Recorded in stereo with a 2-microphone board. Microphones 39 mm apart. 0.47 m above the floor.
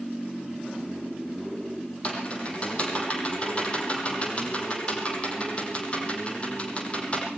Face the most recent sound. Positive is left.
turn(degrees=35)  # may be behind; listen again after turning